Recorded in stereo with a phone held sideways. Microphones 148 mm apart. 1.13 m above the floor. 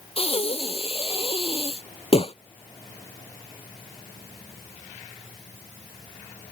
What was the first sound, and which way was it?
Breathing, 40° left (ahead or behind).